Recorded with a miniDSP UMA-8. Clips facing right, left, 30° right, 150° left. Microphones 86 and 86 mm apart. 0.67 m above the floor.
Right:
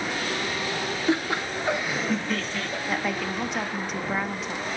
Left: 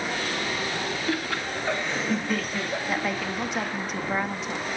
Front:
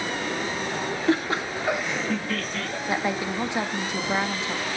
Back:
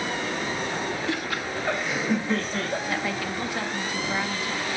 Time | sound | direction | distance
1.1 | laughter | 40° right | 1.1 m
2.9 | a woman speaking | straight ahead | 0.8 m